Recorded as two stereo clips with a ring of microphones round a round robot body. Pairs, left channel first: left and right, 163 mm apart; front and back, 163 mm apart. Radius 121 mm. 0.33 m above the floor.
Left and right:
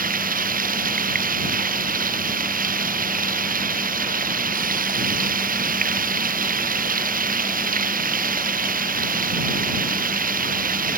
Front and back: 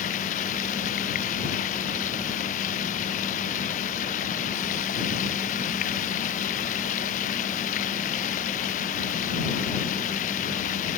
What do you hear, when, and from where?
0.0 s running water: 60° right